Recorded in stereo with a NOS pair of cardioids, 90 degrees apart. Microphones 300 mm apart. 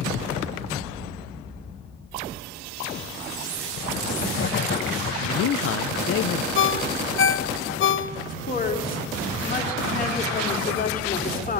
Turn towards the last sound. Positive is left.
turn(degrees=30)